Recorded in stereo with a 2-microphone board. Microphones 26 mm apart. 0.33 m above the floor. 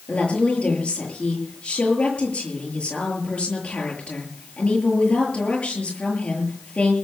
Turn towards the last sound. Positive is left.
turn(degrees=60)  # may be behind; listen again after turning